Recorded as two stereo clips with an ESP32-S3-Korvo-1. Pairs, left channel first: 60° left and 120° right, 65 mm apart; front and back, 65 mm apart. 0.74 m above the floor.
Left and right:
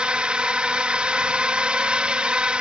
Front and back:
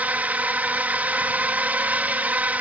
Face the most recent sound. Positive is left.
turn(degrees=-170)